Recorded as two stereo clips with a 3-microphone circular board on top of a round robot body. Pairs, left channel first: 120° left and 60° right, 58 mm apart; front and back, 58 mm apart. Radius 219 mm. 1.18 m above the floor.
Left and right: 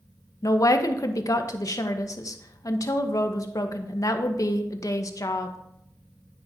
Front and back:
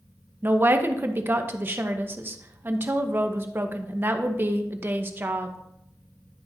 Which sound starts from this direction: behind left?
A woman speaking, at 0.4 s.